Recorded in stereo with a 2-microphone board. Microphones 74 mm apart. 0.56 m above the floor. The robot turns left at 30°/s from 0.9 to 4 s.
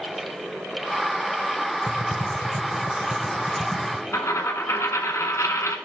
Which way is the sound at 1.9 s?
50° right (ahead or behind).